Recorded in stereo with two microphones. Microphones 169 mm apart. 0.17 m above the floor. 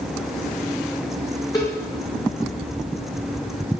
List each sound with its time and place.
1.5 s a cowbell: 20° left (ahead or behind), 3 m